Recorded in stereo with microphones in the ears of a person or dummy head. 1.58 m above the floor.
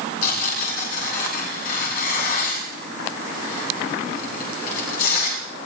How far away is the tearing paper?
About 7.5 m.